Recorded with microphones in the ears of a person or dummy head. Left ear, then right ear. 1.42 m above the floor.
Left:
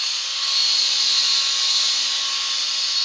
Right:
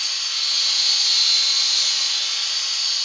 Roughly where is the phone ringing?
No phone ringing in this recording.